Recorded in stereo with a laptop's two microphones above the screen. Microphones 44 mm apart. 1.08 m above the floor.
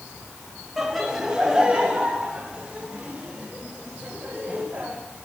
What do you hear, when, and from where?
0.8 s laughter: centre (ahead or behind), 2.5 m; by 4.9 s 30° right (ahead or behind), 6.5 m